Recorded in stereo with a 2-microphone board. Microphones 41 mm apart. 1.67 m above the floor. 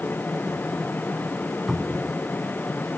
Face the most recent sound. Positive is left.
turn(degrees=0)  # may be behind; listen again after turning